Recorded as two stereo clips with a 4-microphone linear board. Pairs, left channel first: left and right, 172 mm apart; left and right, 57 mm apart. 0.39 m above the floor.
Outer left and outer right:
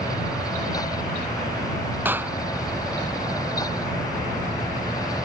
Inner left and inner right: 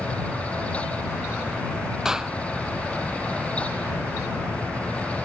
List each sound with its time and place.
2.0 s a clap: 10° right (ahead or behind)